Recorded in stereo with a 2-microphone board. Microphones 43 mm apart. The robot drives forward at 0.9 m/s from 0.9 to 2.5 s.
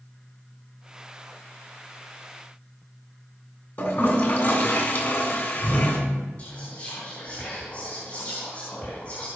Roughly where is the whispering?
Left.